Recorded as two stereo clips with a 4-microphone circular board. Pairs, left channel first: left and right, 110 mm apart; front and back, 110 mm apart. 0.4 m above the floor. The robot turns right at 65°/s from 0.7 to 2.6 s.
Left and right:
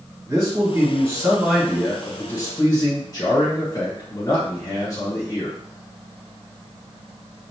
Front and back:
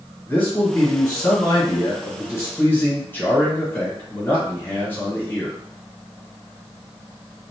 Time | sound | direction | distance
0.3 | a man speaking | 65° right | 1.3 m